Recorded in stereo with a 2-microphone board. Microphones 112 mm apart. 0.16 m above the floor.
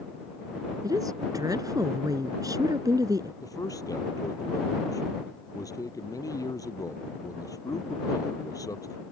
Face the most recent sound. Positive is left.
turn(degrees=35)  # may be behind; listen again after turning